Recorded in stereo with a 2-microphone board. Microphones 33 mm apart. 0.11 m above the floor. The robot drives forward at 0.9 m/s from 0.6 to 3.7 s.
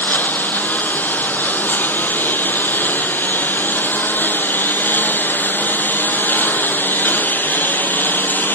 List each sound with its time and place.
0.0 s a lawn mower: 65° left (ahead or behind); by 8.6 s 75° left (ahead or behind)